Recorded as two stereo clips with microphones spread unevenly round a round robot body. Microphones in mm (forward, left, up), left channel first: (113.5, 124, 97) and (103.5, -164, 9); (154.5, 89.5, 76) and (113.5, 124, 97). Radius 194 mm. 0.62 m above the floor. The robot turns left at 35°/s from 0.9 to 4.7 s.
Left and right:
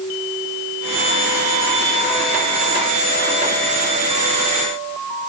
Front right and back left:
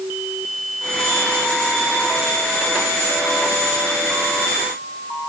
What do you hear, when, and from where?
Only background noise.